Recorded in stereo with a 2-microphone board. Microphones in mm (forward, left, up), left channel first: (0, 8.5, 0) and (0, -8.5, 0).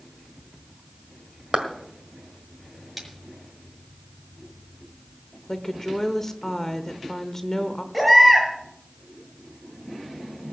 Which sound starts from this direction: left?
A woman speaking, at 5.5 s.